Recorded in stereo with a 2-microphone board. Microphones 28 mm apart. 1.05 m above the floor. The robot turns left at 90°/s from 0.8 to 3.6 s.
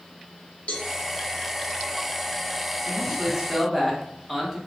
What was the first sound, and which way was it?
A cowbell, 50° left (ahead or behind).